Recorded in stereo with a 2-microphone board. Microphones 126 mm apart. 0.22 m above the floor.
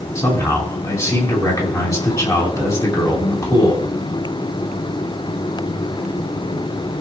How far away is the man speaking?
About 2 m.